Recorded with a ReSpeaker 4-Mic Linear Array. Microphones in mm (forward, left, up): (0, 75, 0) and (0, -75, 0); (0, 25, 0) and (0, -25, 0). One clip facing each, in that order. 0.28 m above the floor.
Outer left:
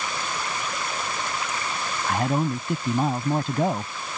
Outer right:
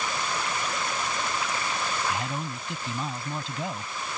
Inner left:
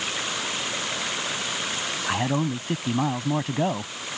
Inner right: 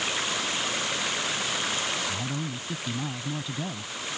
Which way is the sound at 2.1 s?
55° left (ahead or behind).